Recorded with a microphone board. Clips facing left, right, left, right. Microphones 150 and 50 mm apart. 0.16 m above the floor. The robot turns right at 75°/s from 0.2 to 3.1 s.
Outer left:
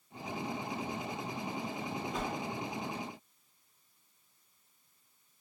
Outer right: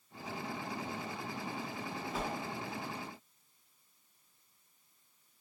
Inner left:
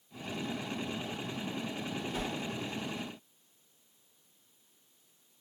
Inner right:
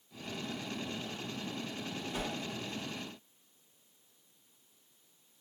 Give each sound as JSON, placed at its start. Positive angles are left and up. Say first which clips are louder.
{"t": 2.1, "sound": "a whoosh", "louder": "even, even", "side_deg": -5, "distance_m": 0.5}